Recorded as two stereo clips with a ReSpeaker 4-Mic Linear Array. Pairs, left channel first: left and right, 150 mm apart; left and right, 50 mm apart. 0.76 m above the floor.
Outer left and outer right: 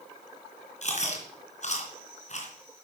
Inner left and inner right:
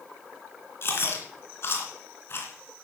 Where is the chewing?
50° left (ahead or behind), 3 m.